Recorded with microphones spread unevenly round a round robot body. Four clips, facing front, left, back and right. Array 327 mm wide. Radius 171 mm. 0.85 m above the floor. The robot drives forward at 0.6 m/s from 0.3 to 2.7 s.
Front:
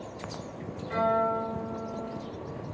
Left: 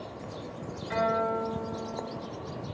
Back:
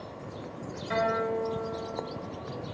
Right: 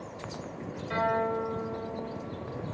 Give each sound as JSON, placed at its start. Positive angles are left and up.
{"t": 0.9, "sound": "a guitar", "azimuth_deg": -175, "distance_m": 1.1}